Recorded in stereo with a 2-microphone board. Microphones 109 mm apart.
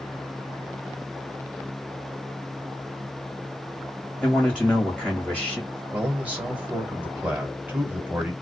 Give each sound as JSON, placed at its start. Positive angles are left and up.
{"t": 4.2, "sound": "a man speaking", "side_deg": -10, "distance_m": 1.4}
{"t": 5.9, "sound": "a man speaking", "side_deg": -15, "distance_m": 1.5}